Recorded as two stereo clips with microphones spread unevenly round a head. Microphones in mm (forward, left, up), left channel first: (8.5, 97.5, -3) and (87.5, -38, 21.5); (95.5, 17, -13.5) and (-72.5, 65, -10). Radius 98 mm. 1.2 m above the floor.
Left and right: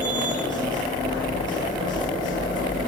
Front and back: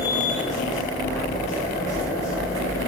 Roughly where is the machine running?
Ahead left.